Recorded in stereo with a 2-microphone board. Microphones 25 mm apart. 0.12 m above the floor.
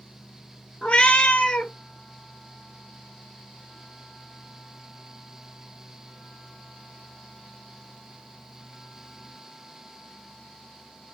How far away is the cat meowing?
About 0.6 m.